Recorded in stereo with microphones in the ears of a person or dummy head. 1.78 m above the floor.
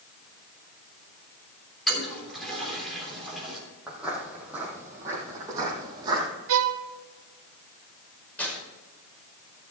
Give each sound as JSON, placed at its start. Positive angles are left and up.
{"t": 1.9, "sound": "a toilet flushing", "side_deg": 0, "distance_m": 3.5}
{"t": 3.9, "sound": "footsteps", "side_deg": -10, "distance_m": 4.0}
{"t": 6.5, "sound": "a violin", "side_deg": -75, "distance_m": 0.8}
{"t": 8.4, "sound": "tearing paper", "side_deg": 5, "distance_m": 5.5}